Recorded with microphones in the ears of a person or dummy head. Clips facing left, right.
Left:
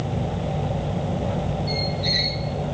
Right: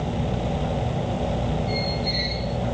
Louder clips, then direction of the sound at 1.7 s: Even; 80° left.